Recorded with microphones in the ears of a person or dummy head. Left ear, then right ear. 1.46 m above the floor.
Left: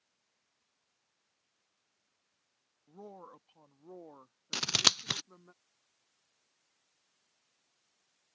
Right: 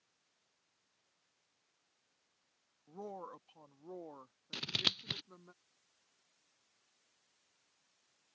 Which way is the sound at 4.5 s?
45° left (ahead or behind).